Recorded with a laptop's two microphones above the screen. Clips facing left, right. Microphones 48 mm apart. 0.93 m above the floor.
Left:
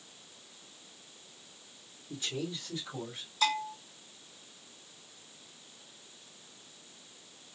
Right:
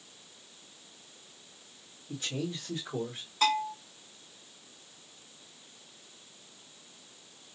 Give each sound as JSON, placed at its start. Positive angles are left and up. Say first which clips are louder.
{"t": 2.1, "sound": "a man speaking", "louder": "right 2 dB", "side_deg": -55, "distance_m": 2.0}
{"t": 3.4, "sound": "a bell", "louder": "right 3 dB", "side_deg": -50, "distance_m": 2.5}